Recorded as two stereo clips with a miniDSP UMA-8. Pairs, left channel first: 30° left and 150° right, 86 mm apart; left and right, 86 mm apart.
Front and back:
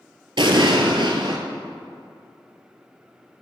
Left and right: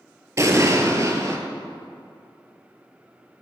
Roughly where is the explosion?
Behind right.